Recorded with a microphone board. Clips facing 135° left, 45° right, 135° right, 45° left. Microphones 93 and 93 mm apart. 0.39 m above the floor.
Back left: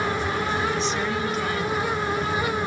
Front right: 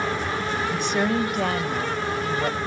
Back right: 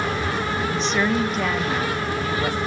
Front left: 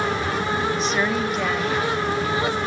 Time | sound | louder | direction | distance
0.7 | a woman speaking | front right 2 dB, back right 1 dB | 40° right | 1.4 m